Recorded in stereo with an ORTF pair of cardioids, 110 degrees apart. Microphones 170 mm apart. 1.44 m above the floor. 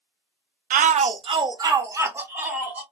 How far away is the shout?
About 0.6 m.